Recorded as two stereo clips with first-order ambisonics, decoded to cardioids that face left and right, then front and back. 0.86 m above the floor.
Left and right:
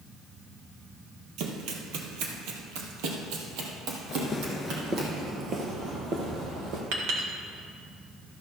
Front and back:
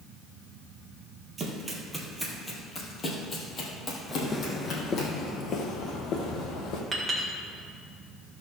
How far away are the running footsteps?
About 1.6 m.